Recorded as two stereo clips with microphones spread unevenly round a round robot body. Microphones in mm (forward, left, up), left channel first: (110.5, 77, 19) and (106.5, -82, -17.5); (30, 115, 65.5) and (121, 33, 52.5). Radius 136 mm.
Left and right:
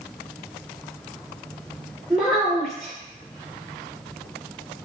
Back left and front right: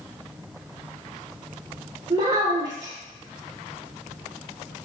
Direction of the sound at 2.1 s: 20° right.